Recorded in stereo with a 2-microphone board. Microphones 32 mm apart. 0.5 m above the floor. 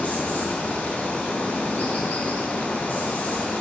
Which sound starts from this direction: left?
Running water, at 0.0 s.